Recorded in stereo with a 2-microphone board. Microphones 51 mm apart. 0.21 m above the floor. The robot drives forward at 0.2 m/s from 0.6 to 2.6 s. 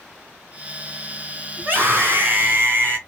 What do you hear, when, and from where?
1.6 s a scream: 50° right (ahead or behind), 1.9 m